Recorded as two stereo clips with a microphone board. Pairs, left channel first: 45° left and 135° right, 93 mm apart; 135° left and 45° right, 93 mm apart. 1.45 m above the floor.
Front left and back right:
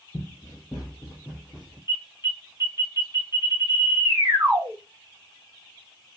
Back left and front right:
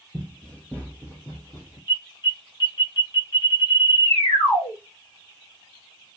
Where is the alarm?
170° left, 1.5 m.